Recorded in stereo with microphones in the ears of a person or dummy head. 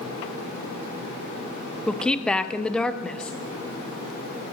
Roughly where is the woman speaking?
Centre.